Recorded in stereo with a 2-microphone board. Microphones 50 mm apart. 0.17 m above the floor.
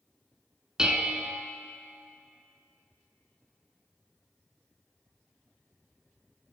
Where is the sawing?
No sawing in this recording.